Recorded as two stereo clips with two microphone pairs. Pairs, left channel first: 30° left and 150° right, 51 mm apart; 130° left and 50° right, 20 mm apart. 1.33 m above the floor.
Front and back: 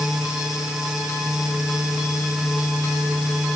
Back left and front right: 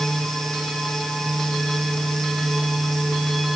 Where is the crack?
No crack in this recording.